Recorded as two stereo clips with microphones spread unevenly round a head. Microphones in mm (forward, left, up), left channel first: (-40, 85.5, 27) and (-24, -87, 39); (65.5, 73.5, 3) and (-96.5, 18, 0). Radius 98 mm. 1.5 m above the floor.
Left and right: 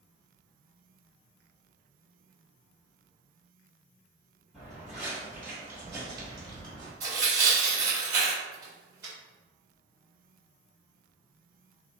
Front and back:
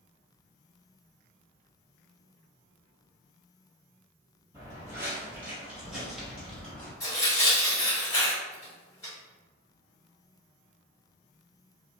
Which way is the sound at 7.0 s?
35° right.